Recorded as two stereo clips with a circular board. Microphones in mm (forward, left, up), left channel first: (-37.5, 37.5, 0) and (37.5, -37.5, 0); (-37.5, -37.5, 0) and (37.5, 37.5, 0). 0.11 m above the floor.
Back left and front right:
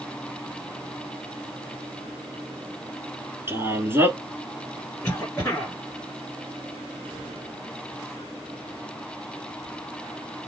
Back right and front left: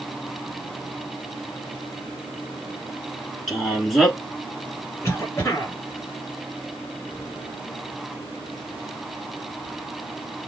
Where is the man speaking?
45° right, 1.1 m.